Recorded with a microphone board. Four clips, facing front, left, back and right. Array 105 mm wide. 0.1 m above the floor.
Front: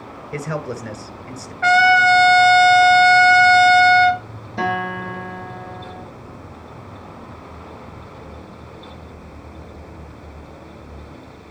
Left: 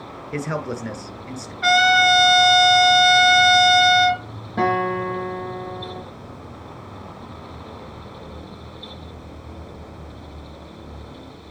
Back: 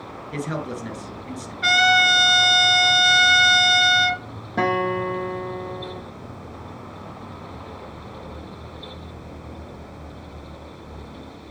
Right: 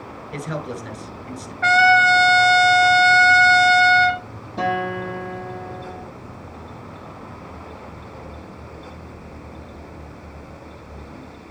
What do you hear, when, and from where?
0.3 s a man speaking: 50° left, 1.2 m
1.6 s a trumpet: 40° right, 1.1 m
4.6 s a guitar: 150° left, 5 m